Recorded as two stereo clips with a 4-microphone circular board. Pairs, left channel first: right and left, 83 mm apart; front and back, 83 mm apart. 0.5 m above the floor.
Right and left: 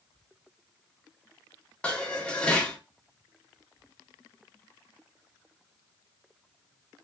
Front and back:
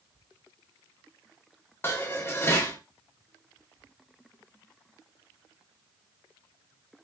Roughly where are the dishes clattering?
Ahead right.